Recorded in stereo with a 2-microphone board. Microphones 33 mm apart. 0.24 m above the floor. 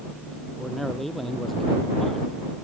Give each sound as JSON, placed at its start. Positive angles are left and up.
{"t": 0.6, "sound": "a man speaking", "side_deg": 5}